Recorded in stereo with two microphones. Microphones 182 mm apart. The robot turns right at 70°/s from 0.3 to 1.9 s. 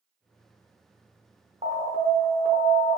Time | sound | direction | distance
1.6 | an alarm | 35° right (ahead or behind) | 0.8 m